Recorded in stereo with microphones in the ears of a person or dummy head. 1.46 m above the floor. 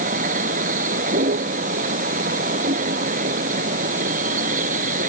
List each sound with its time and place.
0.0 s a vehicle: 50° right (ahead or behind)